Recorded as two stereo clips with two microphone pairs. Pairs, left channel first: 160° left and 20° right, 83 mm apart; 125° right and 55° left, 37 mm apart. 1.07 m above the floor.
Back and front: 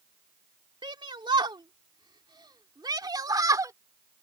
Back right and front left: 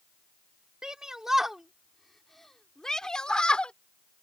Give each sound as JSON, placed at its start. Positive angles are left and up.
{"t": 0.8, "sound": "a shout", "azimuth_deg": -15}